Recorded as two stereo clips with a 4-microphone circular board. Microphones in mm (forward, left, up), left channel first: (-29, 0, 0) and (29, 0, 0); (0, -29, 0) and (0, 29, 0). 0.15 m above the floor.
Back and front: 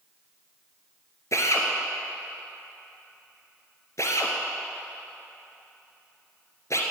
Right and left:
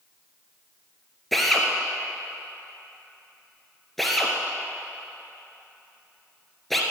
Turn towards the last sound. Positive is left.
turn(degrees=-175)